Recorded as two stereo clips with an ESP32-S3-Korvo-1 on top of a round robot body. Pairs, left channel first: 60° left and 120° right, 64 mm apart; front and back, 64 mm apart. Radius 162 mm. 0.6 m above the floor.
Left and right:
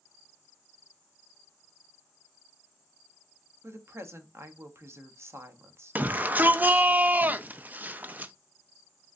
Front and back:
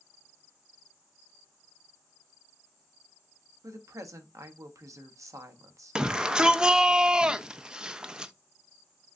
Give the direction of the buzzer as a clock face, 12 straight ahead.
I don't hear a buzzer.